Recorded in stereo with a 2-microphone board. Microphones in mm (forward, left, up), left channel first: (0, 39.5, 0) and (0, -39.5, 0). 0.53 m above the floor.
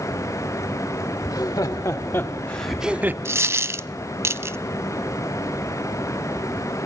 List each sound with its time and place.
1.2 s laughter: 60° left (ahead or behind), 2 m; by 3.1 s 30° right (ahead or behind), 1.2 m
3.2 s a dropped coin: 35° right (ahead or behind), 0.5 m